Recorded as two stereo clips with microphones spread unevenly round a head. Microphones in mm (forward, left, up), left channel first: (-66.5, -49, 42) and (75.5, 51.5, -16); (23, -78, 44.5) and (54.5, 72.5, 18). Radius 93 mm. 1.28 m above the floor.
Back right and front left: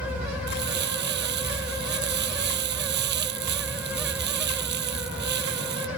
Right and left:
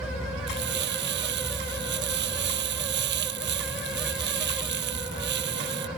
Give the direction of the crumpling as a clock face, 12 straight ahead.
10 o'clock.